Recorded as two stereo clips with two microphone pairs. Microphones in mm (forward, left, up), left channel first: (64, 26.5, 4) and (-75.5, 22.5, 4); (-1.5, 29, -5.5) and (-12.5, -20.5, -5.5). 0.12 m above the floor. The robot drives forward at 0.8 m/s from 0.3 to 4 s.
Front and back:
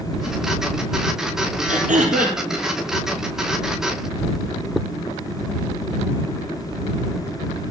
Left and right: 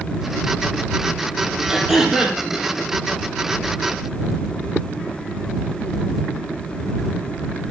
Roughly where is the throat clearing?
Behind.